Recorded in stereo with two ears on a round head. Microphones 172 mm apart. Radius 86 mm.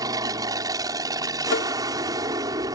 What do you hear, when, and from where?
0.0 s an aircraft: 20° right (ahead or behind)
1.5 s tapping: 70° left (ahead or behind)